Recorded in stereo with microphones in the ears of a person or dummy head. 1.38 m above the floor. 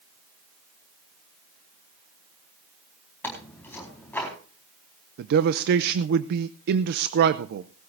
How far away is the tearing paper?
About 4.5 m.